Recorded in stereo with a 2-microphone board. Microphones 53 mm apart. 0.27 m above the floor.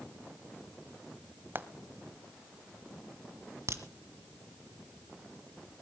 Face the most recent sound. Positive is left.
turn(degrees=-60)  # may be behind; listen again after turning